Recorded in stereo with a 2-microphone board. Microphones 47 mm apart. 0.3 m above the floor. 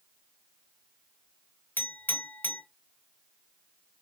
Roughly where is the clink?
Left.